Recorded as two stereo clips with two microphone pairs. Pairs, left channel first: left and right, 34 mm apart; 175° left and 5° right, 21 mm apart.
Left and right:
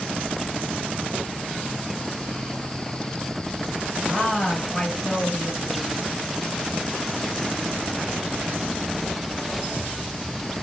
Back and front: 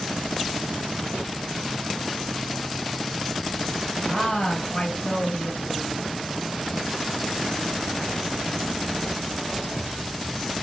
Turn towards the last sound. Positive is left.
turn(degrees=155)